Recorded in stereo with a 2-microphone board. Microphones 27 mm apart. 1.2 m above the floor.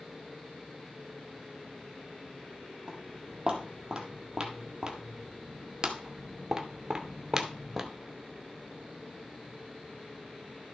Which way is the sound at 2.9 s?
20° right (ahead or behind).